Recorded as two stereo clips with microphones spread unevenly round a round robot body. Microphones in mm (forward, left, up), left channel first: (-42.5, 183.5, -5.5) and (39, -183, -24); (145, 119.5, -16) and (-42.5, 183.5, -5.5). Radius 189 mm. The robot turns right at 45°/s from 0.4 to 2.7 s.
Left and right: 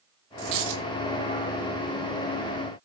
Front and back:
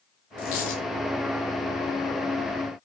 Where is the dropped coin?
50° right, 5 m; by 0.8 s 30° right, 5 m.